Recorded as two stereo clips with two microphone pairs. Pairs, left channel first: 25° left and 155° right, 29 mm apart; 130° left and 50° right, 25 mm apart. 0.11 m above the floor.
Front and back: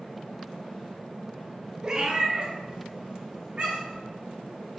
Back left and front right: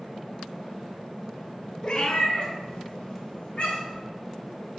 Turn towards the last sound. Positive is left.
turn(degrees=145)